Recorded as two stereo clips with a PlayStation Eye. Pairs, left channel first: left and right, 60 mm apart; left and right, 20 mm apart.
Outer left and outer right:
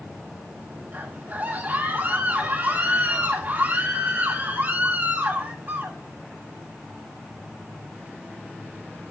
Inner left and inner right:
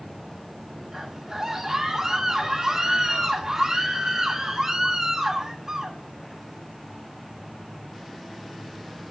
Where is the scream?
25° right (ahead or behind), 9 m.